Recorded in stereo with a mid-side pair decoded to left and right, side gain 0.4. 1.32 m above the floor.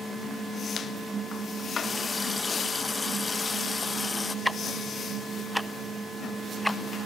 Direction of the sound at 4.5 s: Straight ahead.